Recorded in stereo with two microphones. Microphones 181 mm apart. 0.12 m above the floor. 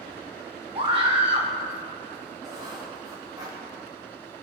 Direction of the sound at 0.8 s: 35° right (ahead or behind).